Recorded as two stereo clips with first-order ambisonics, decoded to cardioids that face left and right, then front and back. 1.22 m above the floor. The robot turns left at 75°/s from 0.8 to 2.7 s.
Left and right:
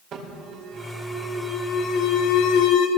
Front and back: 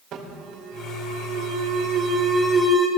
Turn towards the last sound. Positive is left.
turn(degrees=80)